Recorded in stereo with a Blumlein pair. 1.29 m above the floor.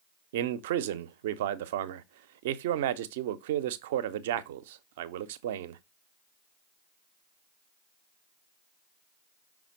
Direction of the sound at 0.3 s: 55° right.